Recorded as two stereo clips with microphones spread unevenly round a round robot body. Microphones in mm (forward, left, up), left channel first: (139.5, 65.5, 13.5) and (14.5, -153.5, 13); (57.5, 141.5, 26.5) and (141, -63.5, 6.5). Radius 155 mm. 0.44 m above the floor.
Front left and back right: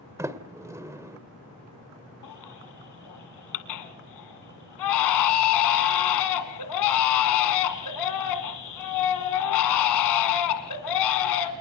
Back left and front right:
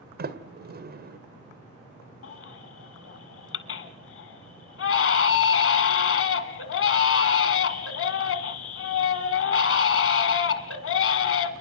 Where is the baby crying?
90° left, 1.7 m.